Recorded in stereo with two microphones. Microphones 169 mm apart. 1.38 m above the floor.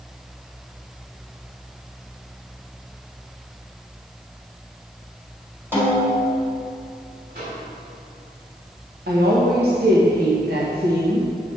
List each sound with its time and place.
5.7 s a snare drum: 15° right (ahead or behind), 2.5 m
7.3 s a microwave: 60° right (ahead or behind), 2.5 m
9.1 s a woman speaking: 70° right (ahead or behind), 1.1 m